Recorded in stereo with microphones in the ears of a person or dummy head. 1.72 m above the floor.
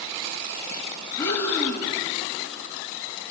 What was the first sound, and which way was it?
Breathing, 15° left (ahead or behind).